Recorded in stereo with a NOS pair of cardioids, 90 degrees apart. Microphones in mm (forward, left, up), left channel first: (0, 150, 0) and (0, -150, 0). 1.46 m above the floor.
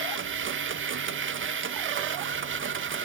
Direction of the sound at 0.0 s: 40° right.